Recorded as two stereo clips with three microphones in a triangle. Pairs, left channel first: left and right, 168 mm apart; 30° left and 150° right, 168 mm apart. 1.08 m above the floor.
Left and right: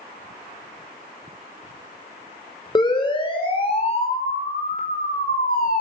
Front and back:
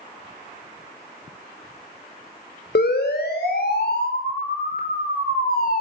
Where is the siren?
30° left, 5 m; by 5.8 s 60° left, 4.5 m.